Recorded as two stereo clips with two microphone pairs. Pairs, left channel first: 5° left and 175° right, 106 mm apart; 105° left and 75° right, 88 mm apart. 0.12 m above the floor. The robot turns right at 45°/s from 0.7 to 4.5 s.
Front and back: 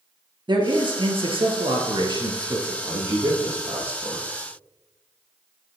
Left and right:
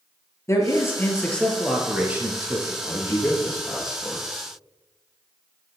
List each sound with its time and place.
0.5 s a man speaking: 150° left, 2 m; by 2.7 s 115° right, 2 m
2.8 s a man speaking: 140° left, 3.5 m; by 4.3 s 155° right, 3.5 m